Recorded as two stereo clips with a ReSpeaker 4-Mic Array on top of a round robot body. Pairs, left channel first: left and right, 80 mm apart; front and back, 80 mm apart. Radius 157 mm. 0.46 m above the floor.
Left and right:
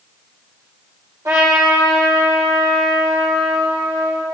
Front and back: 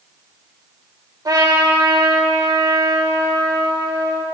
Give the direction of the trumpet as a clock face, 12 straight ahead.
5 o'clock.